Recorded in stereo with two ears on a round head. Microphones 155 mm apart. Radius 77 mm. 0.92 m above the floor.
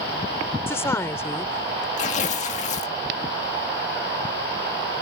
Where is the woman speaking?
15° left (ahead or behind).